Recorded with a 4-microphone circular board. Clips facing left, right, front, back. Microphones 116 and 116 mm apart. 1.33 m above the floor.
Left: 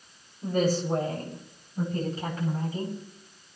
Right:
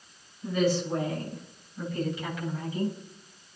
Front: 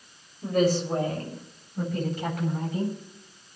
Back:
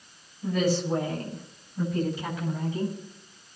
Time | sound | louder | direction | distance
0.4 | a woman speaking | left 1 dB, front 2 dB | 45° left | 8 m